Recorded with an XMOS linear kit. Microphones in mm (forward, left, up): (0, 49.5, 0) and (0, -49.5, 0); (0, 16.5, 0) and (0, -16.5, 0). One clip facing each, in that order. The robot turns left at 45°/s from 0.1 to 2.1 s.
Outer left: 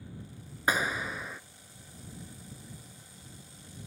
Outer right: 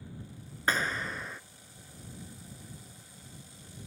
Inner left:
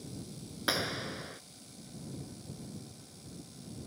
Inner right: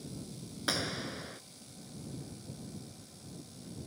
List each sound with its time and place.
0.7 s a clap: 10° left (ahead or behind); by 1.4 s centre (ahead or behind)